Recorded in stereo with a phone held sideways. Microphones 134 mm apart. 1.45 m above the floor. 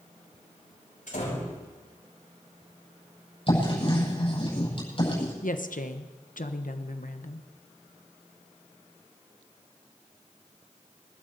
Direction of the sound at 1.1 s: 75° left (ahead or behind).